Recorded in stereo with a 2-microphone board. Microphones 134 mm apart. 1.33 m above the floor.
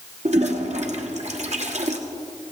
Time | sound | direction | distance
0.2 | a toilet flushing | 60° right (ahead or behind) | 1.5 m